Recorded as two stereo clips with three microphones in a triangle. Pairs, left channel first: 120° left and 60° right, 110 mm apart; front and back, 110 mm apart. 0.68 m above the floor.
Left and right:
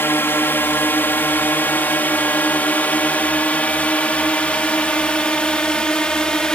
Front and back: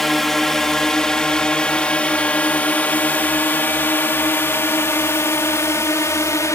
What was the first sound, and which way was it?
A drone, 85° left.